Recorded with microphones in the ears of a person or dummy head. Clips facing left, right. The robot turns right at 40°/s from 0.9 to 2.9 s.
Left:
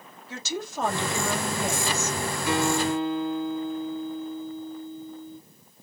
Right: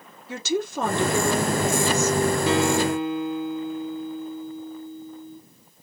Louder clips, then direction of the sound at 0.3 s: Right 8 dB; 55° right.